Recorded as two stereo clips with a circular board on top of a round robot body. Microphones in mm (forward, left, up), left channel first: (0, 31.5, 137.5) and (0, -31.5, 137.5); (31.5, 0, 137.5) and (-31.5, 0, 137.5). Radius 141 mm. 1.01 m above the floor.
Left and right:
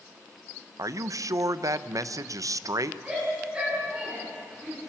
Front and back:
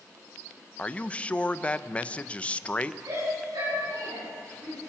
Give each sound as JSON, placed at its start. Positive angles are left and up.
{"t": 0.8, "sound": "a man speaking", "azimuth_deg": -70, "distance_m": 0.9}
{"t": 3.0, "sound": "a shout", "azimuth_deg": -165, "distance_m": 9.5}